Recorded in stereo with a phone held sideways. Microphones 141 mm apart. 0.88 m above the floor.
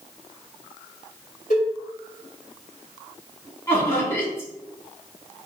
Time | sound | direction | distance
1.5 | a cowbell | 60° left (ahead or behind) | 1.8 m
3.7 | laughter | 20° left (ahead or behind) | 1.8 m